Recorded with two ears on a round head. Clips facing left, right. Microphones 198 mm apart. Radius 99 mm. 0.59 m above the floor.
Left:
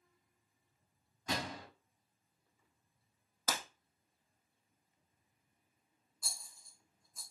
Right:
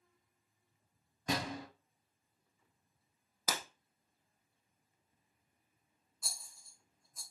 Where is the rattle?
Centre (ahead or behind), 1.1 m.